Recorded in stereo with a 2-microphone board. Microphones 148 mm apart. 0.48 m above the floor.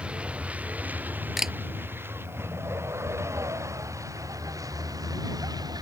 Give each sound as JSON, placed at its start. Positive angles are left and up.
{"t": 0.0, "sound": "a vehicle", "side_deg": -5}
{"t": 1.4, "sound": "a camera shutter", "side_deg": 0}